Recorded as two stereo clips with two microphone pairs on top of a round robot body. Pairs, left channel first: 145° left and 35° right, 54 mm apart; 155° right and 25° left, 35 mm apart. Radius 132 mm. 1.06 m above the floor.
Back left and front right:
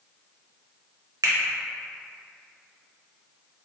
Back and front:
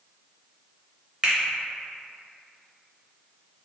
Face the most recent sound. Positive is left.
turn(degrees=-45)